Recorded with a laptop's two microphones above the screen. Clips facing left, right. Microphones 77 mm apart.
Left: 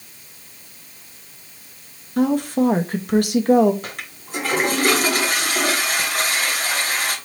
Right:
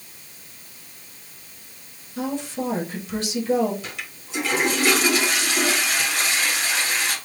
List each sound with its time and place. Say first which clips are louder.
2.2 s a woman speaking: left 9 dB; 55° left (ahead or behind), 0.8 m
3.8 s a toilet flushing: left 2 dB; 45° left (ahead or behind), 1.1 m